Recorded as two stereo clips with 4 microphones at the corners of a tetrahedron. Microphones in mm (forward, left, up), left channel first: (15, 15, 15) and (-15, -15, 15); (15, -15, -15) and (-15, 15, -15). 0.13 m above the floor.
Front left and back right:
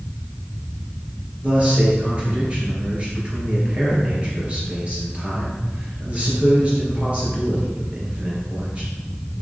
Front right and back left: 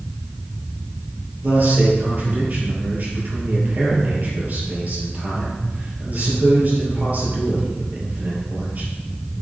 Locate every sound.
1.4 s a man speaking: 170° left, 3 m